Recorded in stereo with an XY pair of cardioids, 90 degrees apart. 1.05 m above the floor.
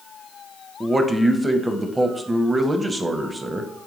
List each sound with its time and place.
0.8 s a man speaking: 25° right, 0.6 m